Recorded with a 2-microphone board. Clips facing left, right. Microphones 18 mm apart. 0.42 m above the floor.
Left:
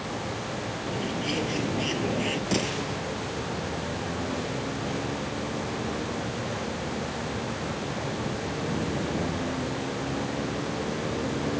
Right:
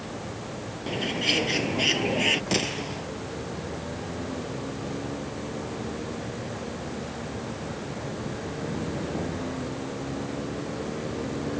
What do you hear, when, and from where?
0.9 s a bird: 40° right (ahead or behind)
2.5 s a gunshot: 20° right (ahead or behind)